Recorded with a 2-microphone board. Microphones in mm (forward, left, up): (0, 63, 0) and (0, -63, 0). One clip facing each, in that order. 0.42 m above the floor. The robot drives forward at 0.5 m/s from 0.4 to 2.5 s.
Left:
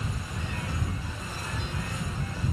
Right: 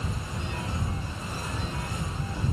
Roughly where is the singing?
No singing in this recording.